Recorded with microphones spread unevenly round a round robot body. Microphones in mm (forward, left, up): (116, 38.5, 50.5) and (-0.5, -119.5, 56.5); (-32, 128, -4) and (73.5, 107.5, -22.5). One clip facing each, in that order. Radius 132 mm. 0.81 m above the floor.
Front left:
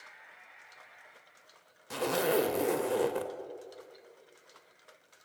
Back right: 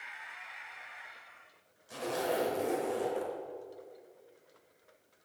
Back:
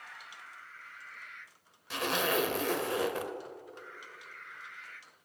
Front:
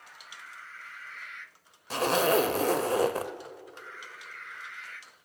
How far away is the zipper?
About 1.0 m.